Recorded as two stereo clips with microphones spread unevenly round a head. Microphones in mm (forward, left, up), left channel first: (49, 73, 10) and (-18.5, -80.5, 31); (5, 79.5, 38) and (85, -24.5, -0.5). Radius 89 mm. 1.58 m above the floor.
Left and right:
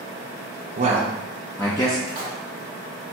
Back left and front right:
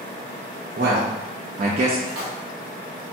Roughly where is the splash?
Right.